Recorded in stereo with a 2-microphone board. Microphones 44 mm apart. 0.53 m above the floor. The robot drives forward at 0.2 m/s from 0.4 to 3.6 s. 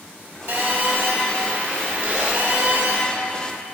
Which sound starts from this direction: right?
A phone buzzing, at 0.5 s.